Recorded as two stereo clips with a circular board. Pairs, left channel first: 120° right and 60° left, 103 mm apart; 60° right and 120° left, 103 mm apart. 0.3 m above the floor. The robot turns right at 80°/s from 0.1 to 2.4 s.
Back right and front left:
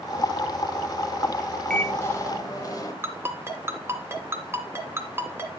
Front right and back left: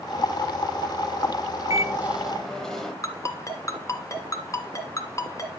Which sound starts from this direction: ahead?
A ringtone, at 3.0 s.